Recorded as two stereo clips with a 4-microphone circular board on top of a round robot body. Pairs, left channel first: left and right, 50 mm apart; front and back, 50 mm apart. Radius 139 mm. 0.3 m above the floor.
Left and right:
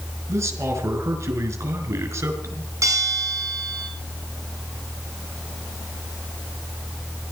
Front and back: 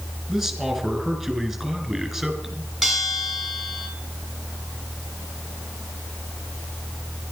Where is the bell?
85° right, 3.5 m.